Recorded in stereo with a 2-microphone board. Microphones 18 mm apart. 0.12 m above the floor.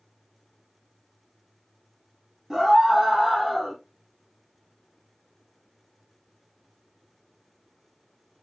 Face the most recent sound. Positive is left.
turn(degrees=-15)  # may be behind; listen again after turning